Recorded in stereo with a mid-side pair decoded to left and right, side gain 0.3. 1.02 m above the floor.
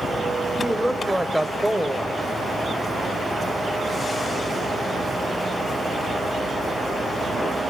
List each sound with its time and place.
0.6 s a woman speaking: 5° left, 4.5 m